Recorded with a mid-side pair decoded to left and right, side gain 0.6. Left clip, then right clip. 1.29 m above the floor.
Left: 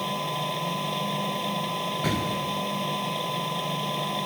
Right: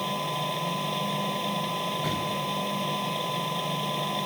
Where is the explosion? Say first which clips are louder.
Left 1 dB; 40° left.